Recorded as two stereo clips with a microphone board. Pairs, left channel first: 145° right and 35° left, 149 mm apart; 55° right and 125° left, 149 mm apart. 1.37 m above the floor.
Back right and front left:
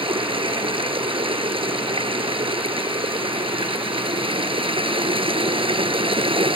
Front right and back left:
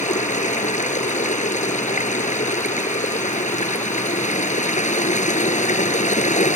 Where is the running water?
20° right.